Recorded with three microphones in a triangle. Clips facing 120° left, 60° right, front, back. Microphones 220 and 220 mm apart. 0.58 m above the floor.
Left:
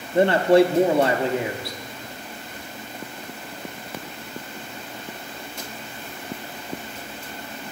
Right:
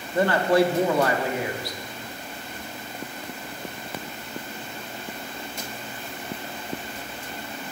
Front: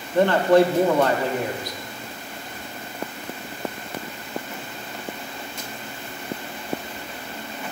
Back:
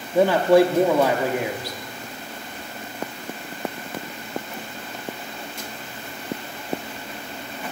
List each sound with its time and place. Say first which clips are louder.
0.1 s a man speaking: left 4 dB, back 1 dB; 115° left, 0.6 m